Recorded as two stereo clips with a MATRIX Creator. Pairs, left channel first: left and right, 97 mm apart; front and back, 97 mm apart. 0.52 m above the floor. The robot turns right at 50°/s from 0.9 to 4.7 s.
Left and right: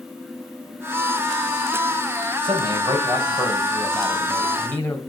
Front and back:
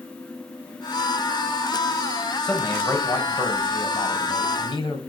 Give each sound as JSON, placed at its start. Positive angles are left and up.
{"t": 2.4, "sound": "a man speaking", "azimuth_deg": -85, "distance_m": 2.0}